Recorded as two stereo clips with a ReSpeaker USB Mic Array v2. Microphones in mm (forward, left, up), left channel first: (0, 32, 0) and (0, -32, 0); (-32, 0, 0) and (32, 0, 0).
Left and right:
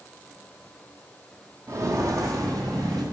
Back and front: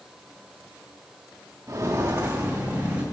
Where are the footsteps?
45° right, 1.5 m; by 3.0 s 65° right, 2.5 m.